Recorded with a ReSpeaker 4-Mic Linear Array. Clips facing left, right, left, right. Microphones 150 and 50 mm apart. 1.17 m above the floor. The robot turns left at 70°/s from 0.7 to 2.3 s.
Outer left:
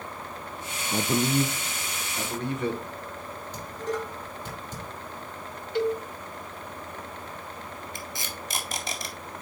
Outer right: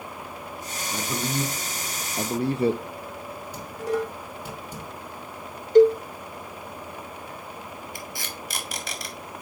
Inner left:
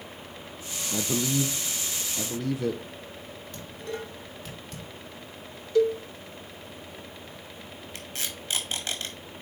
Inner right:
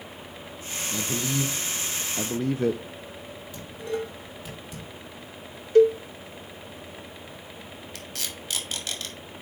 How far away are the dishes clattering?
About 2.5 m.